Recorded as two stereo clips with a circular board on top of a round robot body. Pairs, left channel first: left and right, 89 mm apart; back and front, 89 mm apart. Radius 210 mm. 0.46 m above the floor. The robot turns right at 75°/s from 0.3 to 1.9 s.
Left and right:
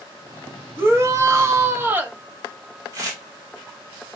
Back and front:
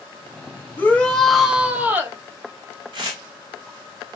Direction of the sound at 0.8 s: 130° right.